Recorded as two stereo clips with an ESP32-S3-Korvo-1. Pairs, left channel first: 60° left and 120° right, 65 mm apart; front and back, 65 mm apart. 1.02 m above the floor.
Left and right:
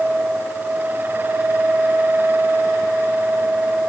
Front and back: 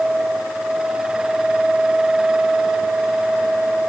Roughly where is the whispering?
No whispering in this recording.